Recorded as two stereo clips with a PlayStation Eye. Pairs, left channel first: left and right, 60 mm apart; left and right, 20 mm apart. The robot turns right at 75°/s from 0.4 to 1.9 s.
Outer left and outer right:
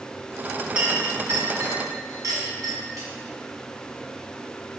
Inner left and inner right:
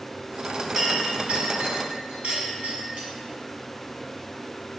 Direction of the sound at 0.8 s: 20° right (ahead or behind).